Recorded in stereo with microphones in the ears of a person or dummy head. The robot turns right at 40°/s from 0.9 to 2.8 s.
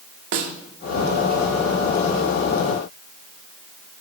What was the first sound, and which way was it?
A snare drum, 50° right (ahead or behind).